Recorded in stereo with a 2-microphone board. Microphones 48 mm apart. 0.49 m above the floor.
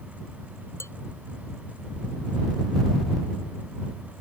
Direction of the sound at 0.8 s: 80° left.